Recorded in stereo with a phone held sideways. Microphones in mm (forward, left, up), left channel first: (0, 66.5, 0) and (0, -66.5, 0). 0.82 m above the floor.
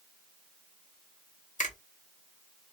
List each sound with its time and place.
1.6 s a finger snap: 75° left (ahead or behind), 1.5 m